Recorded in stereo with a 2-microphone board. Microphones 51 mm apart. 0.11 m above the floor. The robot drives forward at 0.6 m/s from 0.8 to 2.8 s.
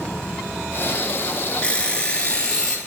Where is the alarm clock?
25° left (ahead or behind), 0.8 m; by 2.8 s 15° left (ahead or behind), 1.2 m.